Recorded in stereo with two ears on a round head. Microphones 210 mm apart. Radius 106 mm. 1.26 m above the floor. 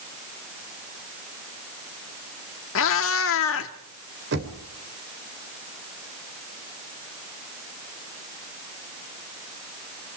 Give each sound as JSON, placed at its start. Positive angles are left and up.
{"t": 2.8, "sound": "a cat meowing", "side_deg": 60, "distance_m": 1.5}
{"t": 4.3, "sound": "knocking", "side_deg": -50, "distance_m": 3.5}